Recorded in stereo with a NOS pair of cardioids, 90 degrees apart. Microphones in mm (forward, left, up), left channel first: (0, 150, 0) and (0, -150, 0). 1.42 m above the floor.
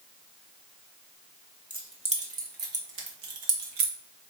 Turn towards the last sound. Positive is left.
turn(degrees=-70)